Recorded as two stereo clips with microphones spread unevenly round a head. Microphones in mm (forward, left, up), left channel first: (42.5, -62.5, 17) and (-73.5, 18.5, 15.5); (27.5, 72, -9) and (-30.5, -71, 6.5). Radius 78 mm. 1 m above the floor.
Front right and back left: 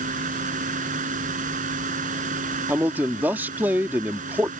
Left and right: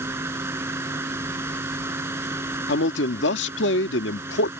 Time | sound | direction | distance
0.0 | a fan | 175° left | ?
2.7 | a man speaking | 65° left | ?